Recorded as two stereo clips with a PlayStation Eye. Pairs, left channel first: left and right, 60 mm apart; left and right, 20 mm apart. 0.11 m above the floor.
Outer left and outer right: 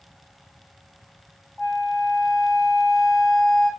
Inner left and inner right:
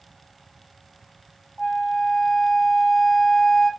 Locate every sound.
1.6 s a flute: centre (ahead or behind), 1.5 m